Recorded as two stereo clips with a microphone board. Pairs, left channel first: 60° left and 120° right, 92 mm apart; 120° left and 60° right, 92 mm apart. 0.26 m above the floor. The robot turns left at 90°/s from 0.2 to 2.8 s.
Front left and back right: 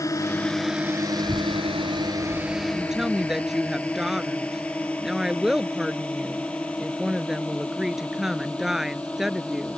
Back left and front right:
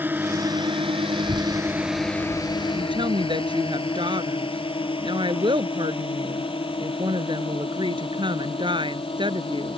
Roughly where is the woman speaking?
Ahead right.